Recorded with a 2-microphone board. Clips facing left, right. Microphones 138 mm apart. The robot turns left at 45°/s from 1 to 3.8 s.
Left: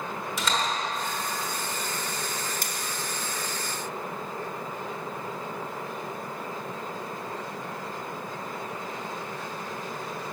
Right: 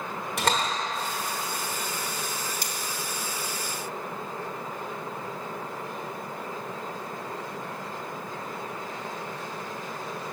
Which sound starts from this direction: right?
A door slam, at 0.4 s.